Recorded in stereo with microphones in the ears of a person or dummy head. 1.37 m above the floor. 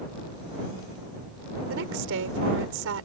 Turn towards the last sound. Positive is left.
turn(degrees=-70)  # may be behind; listen again after turning